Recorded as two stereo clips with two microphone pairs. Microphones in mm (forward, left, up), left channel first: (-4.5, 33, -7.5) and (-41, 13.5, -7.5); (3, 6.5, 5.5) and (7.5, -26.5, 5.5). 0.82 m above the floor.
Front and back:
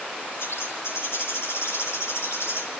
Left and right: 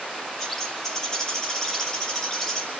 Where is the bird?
25° left, 5 m.